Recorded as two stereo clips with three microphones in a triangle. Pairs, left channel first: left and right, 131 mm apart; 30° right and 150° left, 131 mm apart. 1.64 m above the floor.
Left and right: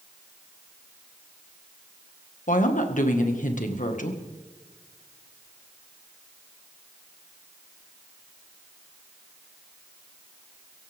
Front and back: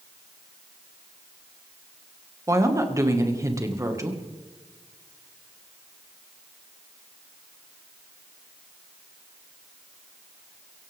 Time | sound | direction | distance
2.5 | a woman speaking | 85° left | 1.8 m